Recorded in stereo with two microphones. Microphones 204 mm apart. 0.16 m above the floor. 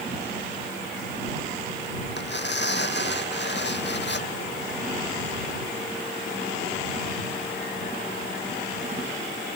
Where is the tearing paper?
60° left (ahead or behind).